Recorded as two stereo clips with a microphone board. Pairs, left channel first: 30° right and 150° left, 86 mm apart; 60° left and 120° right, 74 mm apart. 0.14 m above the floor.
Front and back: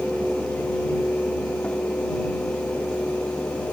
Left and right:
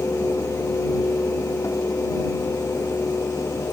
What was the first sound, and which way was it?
Only background noise.